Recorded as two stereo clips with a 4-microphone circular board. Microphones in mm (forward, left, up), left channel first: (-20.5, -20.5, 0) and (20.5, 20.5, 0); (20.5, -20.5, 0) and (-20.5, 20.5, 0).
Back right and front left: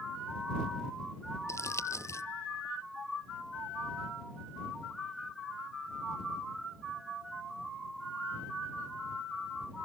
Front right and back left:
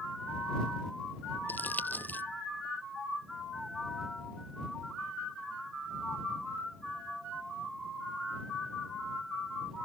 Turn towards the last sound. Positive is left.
turn(degrees=-100)